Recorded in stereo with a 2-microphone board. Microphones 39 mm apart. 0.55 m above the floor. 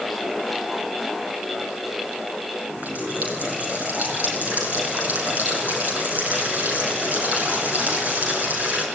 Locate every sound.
2.8 s a running tap: 40° right (ahead or behind), 5 m